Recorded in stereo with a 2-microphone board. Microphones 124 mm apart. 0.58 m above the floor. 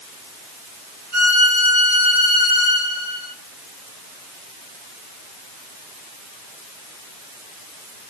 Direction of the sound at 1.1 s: 40° left (ahead or behind).